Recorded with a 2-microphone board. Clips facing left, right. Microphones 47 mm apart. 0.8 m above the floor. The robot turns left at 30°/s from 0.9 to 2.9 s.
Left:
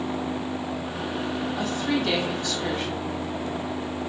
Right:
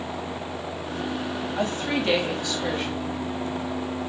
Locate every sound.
1.6 s a woman speaking: 140° right, 3.5 m; by 3.1 s straight behind, 3.5 m